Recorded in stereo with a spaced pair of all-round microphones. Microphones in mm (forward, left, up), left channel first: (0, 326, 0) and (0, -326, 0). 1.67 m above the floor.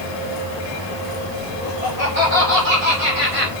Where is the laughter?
80° right, 5.5 m; by 3.5 s 75° right (ahead or behind), 4.5 m.